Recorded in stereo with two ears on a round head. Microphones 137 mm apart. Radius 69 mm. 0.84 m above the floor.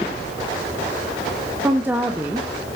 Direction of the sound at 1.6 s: 10° right (ahead or behind).